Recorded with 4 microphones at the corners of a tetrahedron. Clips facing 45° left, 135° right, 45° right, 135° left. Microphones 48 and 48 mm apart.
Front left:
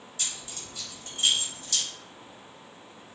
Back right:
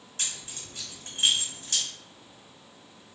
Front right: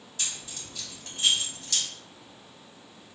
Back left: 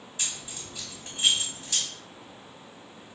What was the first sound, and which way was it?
Keys jangling, 165° right.